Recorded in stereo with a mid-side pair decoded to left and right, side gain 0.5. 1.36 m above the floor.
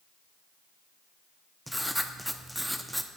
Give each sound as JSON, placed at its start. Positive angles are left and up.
{"t": 1.7, "sound": "writing", "azimuth_deg": 0, "distance_m": 0.5}